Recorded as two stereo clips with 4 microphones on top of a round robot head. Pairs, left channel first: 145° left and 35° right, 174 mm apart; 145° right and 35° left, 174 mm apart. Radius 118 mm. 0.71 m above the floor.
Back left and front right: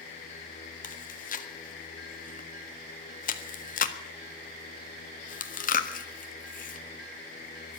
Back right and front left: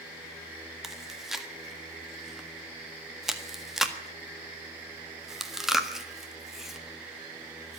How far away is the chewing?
About 1.7 m.